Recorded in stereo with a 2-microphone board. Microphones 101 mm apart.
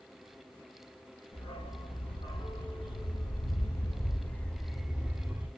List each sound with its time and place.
1.3 s a dog barking: 75° left (ahead or behind), 1.9 m; by 5.5 s 20° right (ahead or behind), 1.0 m